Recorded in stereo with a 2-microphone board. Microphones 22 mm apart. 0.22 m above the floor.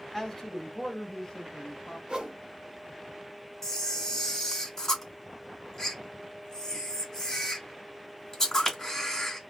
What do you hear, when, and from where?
0.1 s a man speaking: 15° left (ahead or behind), 1.8 m; by 2.0 s 30° left (ahead or behind), 1.7 m
2.1 s a whoosh: 50° right (ahead or behind), 1.4 m
3.6 s a camera shutter: 20° left (ahead or behind), 1.6 m